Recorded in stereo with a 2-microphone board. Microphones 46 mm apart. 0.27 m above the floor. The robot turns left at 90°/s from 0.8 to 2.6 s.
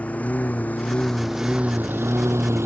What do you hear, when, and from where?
0.0 s a lawn mower: 35° left (ahead or behind); by 2.7 s 75° right (ahead or behind)